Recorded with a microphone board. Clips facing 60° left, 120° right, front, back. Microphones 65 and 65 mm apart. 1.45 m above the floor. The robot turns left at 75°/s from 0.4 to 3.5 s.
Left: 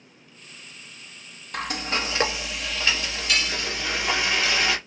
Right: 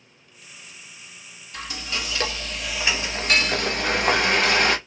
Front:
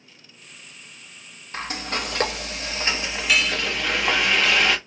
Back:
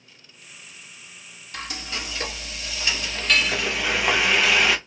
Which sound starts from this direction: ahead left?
Frying, at 1.5 s.